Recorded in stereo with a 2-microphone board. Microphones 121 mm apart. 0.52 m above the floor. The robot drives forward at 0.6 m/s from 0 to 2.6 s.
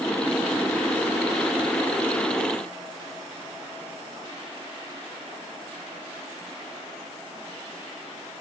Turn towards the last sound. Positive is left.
No sound to turn to.